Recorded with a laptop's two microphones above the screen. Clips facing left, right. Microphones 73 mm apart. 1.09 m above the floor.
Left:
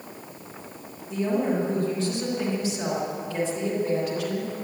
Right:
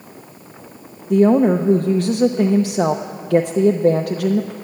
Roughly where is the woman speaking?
Right.